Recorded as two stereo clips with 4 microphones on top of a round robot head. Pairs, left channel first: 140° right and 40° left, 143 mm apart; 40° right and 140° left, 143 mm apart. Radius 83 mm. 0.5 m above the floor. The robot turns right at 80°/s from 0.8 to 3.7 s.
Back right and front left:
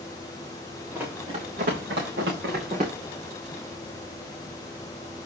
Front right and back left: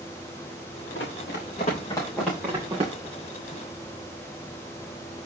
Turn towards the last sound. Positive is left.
turn(degrees=150)